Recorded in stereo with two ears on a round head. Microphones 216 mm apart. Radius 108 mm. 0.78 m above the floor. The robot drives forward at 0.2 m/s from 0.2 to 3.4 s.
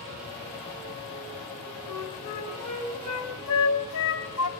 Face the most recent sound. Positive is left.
turn(degrees=70)  # may be behind; listen again after turning